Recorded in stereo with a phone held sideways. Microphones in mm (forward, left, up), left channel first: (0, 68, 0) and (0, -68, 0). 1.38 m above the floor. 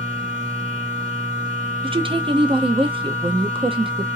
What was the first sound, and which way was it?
A machine running, 80° right.